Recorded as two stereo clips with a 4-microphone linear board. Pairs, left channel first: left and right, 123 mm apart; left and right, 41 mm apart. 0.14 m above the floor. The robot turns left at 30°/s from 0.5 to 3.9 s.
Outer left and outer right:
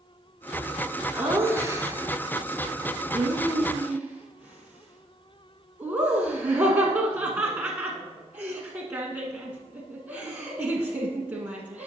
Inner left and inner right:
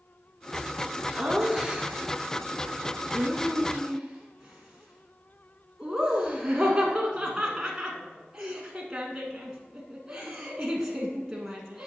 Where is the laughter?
20° right (ahead or behind), 1.1 m; by 11.9 s 15° right (ahead or behind), 1.1 m.